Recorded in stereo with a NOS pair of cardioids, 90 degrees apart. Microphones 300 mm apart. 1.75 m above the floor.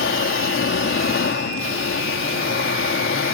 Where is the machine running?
40° left.